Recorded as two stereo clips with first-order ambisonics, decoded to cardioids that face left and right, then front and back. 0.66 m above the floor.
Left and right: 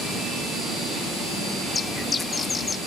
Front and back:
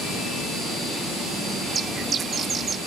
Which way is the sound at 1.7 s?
135° left.